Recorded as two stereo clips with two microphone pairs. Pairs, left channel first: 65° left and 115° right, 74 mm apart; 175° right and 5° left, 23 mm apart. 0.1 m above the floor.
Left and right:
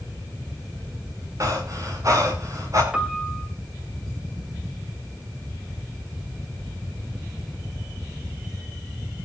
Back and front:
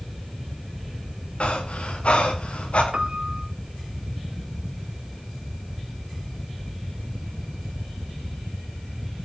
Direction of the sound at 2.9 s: 40° right.